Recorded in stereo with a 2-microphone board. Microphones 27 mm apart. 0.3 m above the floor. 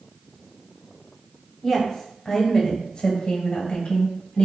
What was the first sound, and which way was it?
A woman speaking, 10° left (ahead or behind).